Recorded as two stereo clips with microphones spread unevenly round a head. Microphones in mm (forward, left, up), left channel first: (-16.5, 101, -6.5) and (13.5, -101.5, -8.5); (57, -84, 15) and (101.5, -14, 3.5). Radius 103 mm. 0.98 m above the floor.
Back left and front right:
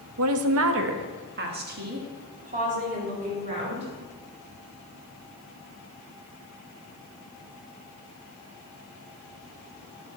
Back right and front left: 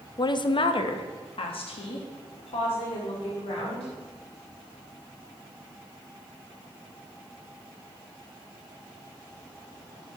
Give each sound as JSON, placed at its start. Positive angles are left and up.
{"t": 0.2, "sound": "a woman speaking", "azimuth_deg": -85, "distance_m": 0.8}